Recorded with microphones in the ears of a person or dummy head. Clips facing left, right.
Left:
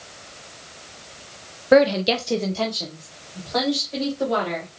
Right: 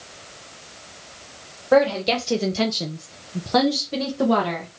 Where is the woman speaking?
30° left (ahead or behind), 0.6 m; by 4.7 s 80° right, 1.4 m.